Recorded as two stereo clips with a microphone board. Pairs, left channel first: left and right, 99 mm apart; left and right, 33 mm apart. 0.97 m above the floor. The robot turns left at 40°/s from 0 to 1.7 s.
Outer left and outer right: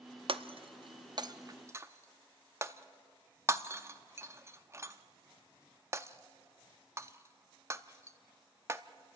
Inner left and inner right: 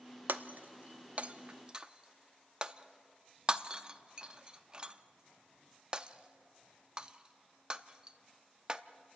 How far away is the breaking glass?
About 0.6 m.